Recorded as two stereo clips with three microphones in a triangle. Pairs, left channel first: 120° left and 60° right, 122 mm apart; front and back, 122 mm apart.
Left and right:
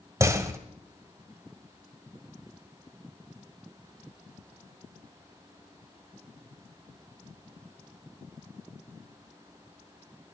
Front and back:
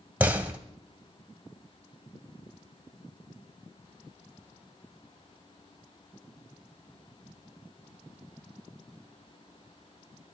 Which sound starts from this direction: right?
A door slam, at 0.2 s.